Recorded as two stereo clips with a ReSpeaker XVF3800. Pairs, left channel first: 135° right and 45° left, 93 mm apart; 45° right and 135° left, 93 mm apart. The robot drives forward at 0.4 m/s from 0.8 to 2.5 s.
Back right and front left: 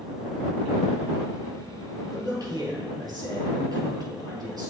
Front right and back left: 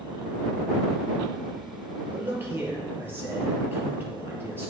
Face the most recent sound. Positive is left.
turn(degrees=75)